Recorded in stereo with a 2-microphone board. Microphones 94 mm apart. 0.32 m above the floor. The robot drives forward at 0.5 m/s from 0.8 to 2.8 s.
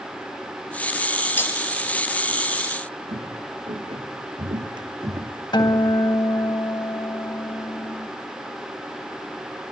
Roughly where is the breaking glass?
Left.